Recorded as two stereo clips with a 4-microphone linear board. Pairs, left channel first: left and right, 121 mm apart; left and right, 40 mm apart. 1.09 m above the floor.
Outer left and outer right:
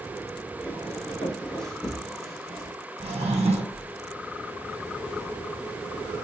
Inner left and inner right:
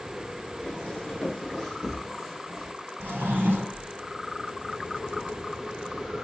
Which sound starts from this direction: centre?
Footsteps, at 0.6 s.